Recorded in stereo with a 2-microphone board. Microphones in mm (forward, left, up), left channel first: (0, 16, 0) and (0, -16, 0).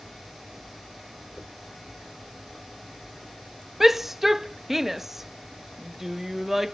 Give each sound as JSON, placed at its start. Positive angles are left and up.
{"t": 1.4, "sound": "a dropped coin", "side_deg": 25}
{"t": 3.8, "sound": "a shout", "side_deg": -10}